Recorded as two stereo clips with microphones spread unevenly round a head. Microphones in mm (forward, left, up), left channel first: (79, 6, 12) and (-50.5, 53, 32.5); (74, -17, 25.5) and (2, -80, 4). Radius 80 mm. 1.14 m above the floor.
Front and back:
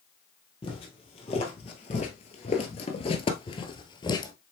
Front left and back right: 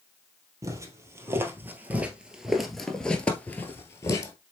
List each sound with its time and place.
0.6 s footsteps: 80° right, 1.7 m; by 4.3 s 40° left, 1.4 m